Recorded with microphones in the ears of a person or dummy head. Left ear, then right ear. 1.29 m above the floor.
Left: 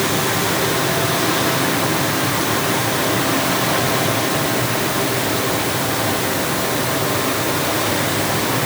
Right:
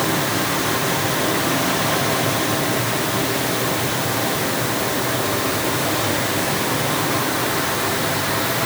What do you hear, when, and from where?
Only background noise.